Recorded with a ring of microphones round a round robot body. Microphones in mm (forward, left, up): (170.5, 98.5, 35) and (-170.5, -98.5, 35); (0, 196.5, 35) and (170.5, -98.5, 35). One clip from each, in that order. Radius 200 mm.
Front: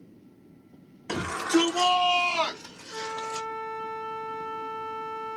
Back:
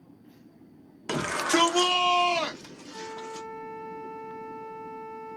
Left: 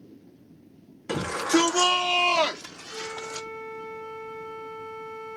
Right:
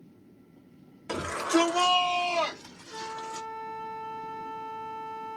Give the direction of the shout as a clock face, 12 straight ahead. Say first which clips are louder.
Even, left 3 dB; 5 o'clock.